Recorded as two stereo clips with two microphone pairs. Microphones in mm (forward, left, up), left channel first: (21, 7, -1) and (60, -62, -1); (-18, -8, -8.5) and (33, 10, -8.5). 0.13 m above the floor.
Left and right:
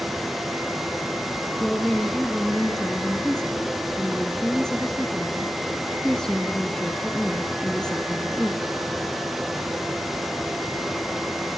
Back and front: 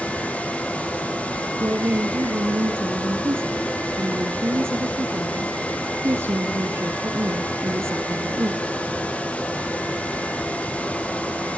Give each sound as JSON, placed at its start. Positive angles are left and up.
{"t": 1.6, "sound": "a woman speaking", "azimuth_deg": 35, "distance_m": 2.0}